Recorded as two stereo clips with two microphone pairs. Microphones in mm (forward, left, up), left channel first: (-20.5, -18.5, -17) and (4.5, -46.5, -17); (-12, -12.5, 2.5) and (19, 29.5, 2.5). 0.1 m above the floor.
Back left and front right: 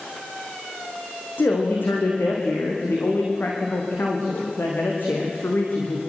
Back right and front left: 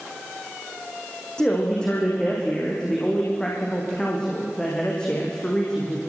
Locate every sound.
1.4 s a man speaking: 160° left, 5.5 m